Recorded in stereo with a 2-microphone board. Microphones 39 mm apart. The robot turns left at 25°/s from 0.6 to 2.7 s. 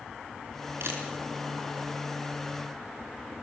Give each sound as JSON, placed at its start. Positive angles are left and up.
{"t": 0.8, "sound": "a camera shutter", "side_deg": -80, "distance_m": 4.5}